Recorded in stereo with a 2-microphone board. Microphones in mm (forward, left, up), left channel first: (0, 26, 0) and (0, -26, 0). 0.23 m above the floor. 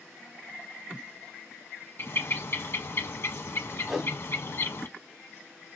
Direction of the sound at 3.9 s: 5° right (ahead or behind).